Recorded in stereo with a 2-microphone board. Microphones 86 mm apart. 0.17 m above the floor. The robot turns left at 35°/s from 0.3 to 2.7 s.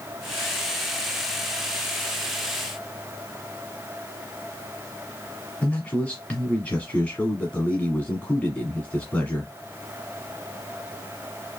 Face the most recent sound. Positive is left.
turn(degrees=10)  # may be behind; listen again after turning